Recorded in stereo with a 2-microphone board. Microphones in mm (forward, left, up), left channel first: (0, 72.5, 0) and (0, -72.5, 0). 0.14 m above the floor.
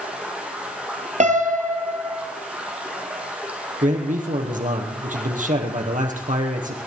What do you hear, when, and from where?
0.0 s running water: 10° right (ahead or behind), 4.5 m
1.2 s a piano: 60° right (ahead or behind), 2 m
3.8 s a man speaking: 70° right (ahead or behind), 4 m